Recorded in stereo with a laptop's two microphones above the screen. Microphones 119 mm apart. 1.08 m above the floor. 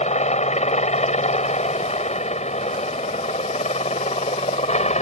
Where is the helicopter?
75° left (ahead or behind).